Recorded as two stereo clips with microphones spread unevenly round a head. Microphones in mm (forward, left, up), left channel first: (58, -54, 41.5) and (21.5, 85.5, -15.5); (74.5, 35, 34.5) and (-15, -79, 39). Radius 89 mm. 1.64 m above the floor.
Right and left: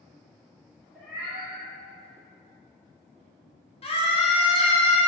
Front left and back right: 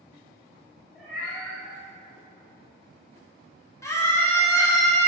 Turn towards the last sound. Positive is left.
turn(degrees=-20)